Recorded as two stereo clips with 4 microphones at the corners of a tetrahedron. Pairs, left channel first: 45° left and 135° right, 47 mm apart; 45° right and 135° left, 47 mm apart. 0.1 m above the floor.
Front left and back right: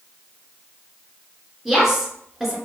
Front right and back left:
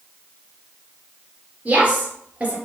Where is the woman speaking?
155° left, 1.2 m.